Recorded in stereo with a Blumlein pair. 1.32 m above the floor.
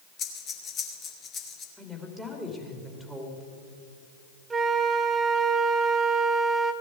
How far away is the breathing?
About 2 m.